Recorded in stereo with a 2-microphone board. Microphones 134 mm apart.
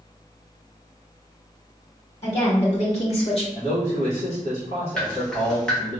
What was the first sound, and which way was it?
A woman speaking, 50° left (ahead or behind).